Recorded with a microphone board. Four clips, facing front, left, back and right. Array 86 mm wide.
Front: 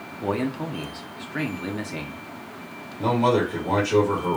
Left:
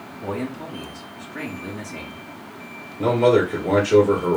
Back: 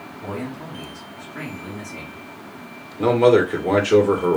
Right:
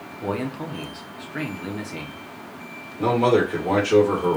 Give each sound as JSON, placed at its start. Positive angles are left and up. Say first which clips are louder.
{"t": 0.2, "sound": "a man speaking", "louder": "right 1 dB, front 5 dB", "azimuth_deg": -25, "distance_m": 0.8}
{"t": 3.0, "sound": "a man speaking", "louder": "left 2 dB, back 6 dB", "azimuth_deg": -175, "distance_m": 1.4}